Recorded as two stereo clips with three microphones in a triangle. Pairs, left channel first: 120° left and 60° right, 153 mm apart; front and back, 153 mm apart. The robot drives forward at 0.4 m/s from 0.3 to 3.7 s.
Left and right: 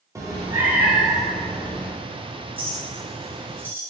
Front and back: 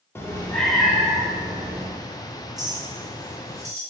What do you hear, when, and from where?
0.1 s a cat meowing: 40° right, 0.6 m; by 1.9 s 165° right, 0.7 m
2.6 s a clink: 115° right, 0.8 m; by 3.8 s 140° right, 1.0 m